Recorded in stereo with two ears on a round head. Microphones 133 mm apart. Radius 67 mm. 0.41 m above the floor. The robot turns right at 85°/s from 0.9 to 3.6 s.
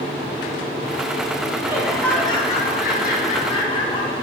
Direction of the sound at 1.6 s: 25° right.